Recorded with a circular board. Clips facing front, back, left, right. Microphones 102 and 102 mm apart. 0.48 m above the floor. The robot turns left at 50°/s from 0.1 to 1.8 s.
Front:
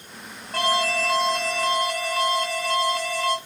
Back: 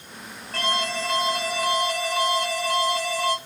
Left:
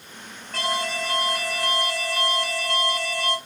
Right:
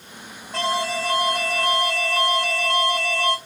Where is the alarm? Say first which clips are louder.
Front 4 dB, right 3 dB; 55° right, 1.5 m; by 3.4 s 120° right, 1.5 m.